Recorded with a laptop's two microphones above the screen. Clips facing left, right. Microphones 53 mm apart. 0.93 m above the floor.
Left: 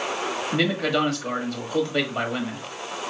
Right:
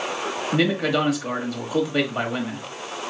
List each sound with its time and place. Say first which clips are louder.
0.5 s a man speaking: right 2 dB; 10° right (ahead or behind), 1.7 m